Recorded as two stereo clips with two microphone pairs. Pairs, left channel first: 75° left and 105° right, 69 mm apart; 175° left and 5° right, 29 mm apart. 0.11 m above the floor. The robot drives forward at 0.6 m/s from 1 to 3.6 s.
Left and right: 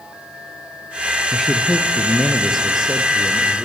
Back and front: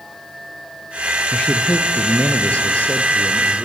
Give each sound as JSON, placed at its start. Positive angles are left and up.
{"t": 1.3, "sound": "a man speaking", "azimuth_deg": 165, "distance_m": 1.7}